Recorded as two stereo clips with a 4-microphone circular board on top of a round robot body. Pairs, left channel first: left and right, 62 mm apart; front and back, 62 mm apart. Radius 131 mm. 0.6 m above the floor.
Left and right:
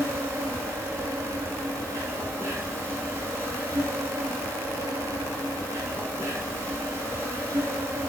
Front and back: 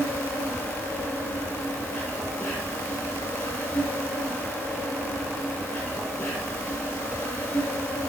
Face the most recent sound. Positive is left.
turn(degrees=-50)